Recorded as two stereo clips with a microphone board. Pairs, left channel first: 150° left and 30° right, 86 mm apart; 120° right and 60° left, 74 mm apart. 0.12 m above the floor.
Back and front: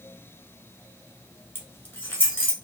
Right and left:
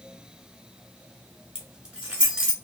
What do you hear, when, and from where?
1.6 s keys jangling: 125° left, 1.1 m